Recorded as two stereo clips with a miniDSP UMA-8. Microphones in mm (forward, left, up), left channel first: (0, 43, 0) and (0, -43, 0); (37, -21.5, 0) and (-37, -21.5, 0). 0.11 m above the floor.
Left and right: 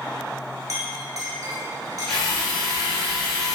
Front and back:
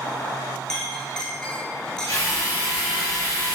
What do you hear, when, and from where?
0.7 s a clink: 80° right, 1.1 m
2.1 s a drill: 10° left, 1.7 m